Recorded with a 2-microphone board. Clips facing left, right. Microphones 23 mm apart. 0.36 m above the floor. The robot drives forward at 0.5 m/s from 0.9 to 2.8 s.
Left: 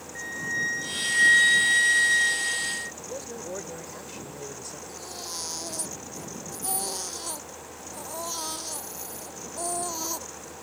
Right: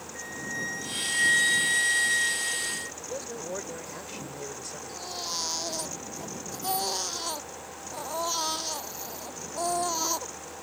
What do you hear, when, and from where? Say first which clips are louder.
0.1 s a flute: left 5 dB; 20° left (ahead or behind); by 2.9 s 10° left (ahead or behind)
3.0 s a man speaking: even; 10° right (ahead or behind)
4.9 s a baby crying: right 5 dB; 20° right (ahead or behind)